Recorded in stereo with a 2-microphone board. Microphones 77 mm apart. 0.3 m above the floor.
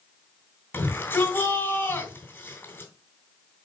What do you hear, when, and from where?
0.7 s a shout: 25° left (ahead or behind), 3 m